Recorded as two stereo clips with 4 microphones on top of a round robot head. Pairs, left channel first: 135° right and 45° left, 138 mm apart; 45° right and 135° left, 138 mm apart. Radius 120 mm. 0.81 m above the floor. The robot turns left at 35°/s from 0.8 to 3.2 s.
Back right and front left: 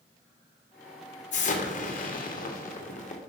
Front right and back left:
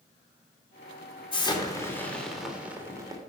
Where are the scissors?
I don't hear scissors.